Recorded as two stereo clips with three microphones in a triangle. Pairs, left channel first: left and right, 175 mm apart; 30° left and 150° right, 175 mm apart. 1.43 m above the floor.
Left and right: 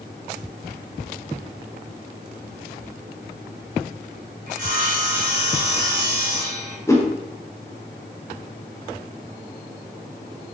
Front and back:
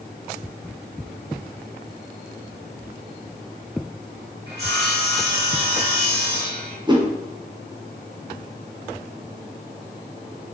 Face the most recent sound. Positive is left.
turn(degrees=160)